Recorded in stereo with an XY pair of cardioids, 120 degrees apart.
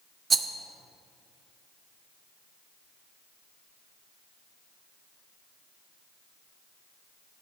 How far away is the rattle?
About 0.7 m.